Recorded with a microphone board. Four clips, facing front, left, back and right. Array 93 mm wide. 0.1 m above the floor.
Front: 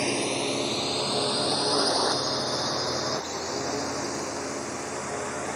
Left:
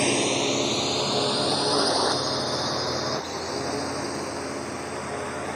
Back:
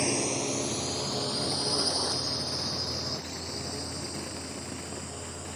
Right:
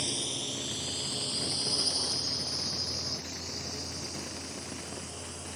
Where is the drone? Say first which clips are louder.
Left 15 dB, front 3 dB; 80° left; by 5.6 s 50° left.